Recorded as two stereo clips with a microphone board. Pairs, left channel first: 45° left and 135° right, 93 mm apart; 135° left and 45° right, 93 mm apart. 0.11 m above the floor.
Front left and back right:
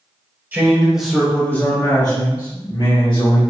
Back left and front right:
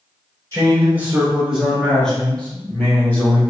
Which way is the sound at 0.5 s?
85° right.